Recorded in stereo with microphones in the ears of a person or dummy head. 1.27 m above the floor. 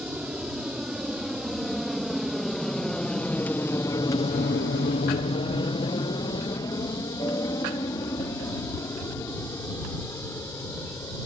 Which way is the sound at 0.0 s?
5° right (ahead or behind).